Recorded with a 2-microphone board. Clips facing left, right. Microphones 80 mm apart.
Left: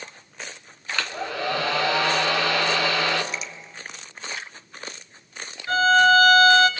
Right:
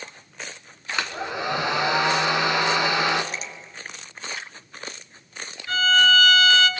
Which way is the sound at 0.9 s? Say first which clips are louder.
Even; 20° right (ahead or behind).